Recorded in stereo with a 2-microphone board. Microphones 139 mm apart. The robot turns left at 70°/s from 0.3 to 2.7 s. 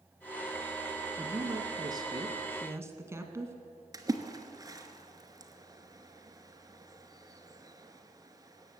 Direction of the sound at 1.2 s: 30° right.